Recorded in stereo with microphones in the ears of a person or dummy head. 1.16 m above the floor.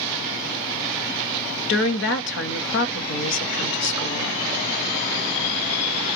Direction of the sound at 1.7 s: 60° left (ahead or behind).